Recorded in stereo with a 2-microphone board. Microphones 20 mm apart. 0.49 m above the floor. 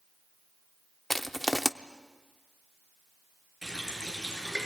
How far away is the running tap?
About 5 m.